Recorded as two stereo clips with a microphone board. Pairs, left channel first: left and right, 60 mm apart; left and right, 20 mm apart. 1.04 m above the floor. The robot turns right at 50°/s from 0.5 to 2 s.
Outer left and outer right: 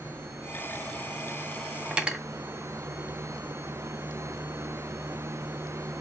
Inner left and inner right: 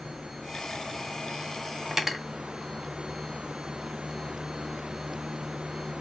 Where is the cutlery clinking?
20° right (ahead or behind), 0.6 m; by 2.2 s 15° right (ahead or behind), 0.6 m.